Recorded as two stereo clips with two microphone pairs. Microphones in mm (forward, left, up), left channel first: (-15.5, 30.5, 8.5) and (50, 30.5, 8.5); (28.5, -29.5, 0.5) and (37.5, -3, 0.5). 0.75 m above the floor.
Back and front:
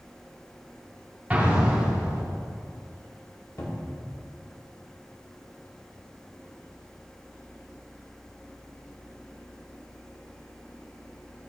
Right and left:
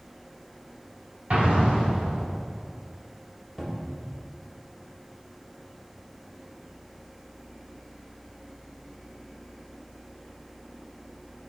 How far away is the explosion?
About 2 m.